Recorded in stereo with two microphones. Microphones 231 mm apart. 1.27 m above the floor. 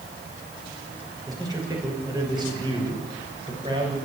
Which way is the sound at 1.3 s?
15° right (ahead or behind).